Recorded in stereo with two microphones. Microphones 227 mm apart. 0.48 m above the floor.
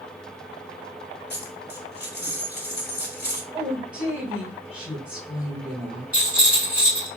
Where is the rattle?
10° right (ahead or behind), 3.5 m.